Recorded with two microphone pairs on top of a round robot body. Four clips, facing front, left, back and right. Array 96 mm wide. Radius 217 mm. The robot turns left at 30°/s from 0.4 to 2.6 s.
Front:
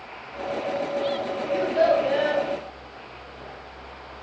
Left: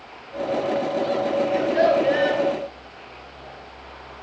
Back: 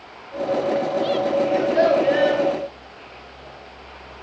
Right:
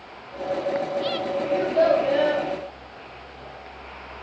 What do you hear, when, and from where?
1.5 s a child speaking: 150° left, 5 m; by 2.4 s 120° left, 5 m